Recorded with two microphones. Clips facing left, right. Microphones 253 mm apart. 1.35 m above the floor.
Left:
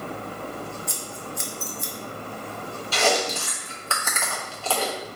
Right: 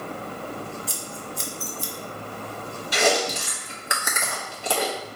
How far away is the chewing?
About 0.8 m.